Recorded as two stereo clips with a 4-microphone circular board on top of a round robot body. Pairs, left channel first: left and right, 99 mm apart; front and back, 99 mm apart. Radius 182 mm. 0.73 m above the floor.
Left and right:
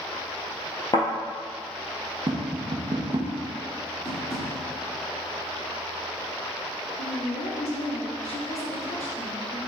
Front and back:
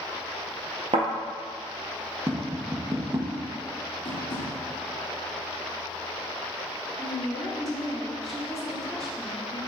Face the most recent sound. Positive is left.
turn(degrees=85)